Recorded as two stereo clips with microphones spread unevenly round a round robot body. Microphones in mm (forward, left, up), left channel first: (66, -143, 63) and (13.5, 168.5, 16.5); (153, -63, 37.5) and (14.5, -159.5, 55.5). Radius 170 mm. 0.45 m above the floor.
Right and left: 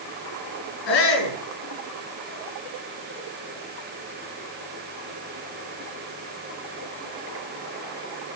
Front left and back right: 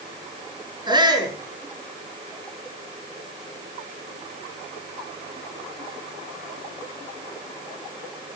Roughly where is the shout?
Right.